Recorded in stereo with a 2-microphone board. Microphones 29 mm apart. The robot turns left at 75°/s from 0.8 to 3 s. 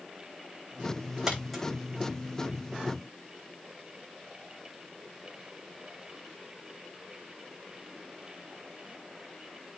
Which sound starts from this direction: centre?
A dropped coin, at 1.3 s.